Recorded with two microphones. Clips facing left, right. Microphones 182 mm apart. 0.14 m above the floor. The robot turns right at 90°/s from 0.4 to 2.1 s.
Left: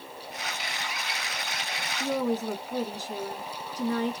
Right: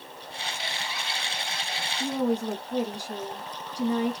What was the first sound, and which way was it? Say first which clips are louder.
A woman speaking: right 1 dB; 10° right (ahead or behind).